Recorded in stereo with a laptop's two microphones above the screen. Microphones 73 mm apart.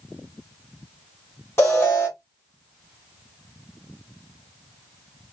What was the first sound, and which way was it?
An alarm, 35° left (ahead or behind).